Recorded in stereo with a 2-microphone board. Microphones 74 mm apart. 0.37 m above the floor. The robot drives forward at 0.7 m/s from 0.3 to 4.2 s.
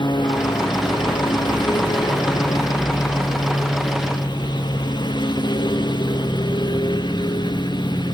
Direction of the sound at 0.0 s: 85° left.